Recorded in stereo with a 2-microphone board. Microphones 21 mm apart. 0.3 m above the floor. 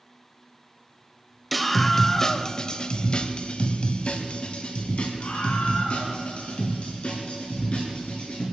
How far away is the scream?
About 1.0 m.